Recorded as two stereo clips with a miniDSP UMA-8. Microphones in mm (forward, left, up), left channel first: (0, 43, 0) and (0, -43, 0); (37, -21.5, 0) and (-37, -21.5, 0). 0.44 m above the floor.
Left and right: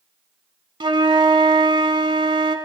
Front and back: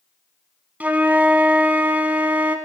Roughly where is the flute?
Right.